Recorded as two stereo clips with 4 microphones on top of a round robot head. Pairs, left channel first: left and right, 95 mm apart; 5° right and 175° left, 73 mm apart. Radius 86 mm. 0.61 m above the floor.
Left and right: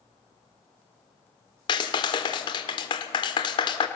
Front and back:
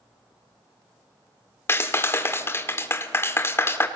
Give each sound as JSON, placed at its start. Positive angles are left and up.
{"t": 1.7, "sound": "a clap", "azimuth_deg": 55, "distance_m": 1.4}